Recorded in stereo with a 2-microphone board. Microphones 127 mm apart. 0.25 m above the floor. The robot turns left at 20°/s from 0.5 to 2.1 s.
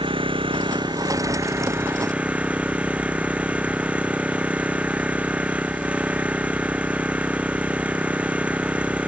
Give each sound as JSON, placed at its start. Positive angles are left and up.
{"t": 0.0, "sound": "an engine running", "azimuth_deg": -140}